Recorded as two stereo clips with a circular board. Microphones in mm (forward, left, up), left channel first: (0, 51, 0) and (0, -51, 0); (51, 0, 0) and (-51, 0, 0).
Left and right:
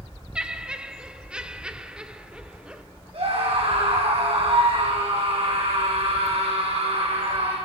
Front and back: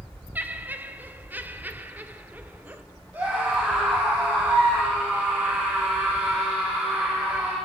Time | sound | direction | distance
0.3 | laughter | 155° right | 1.2 m
3.1 | a scream | 110° right | 5 m